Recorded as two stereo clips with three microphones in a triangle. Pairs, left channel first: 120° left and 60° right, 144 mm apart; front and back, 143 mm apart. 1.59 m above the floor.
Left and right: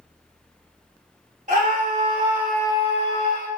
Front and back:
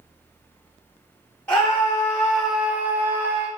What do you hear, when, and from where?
1.5 s a scream: 75° right, 1.3 m; by 3.5 s 105° left, 1.2 m